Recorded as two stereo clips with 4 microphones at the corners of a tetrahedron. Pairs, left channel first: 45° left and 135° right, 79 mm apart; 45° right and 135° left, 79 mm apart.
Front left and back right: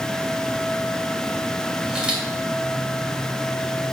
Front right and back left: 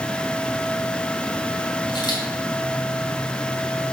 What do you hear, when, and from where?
1.9 s a camera shutter: 55° right, 2.5 m